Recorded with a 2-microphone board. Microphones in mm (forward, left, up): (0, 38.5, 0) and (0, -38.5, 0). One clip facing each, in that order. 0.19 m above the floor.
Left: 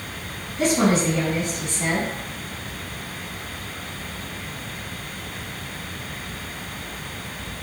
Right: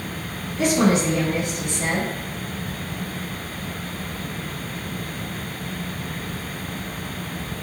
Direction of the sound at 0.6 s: 25° left (ahead or behind).